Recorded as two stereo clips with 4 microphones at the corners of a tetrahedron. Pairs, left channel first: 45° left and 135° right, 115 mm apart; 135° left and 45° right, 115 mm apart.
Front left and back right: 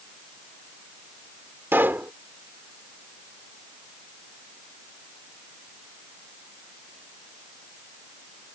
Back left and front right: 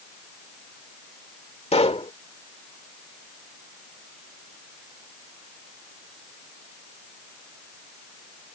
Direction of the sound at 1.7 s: 155° left.